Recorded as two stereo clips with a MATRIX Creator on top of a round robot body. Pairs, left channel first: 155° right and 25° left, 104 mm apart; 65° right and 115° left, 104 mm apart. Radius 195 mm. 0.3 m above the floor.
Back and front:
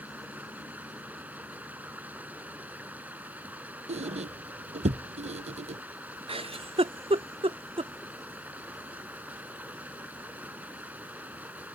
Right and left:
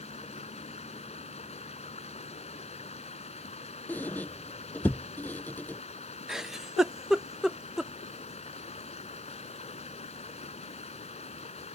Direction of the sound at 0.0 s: 55° right.